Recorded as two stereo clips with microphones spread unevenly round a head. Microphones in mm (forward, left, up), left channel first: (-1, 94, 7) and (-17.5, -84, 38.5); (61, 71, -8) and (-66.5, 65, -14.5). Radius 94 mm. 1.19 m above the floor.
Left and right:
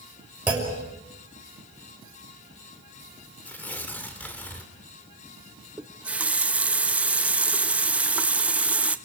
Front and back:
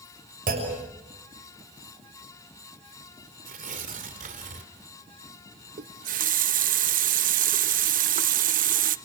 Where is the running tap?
175° right, 0.7 m.